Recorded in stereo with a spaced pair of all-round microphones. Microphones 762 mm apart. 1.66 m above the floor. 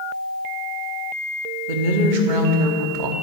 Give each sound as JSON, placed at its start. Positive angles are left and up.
{"t": 1.7, "sound": "a woman speaking", "side_deg": -70, "distance_m": 1.0}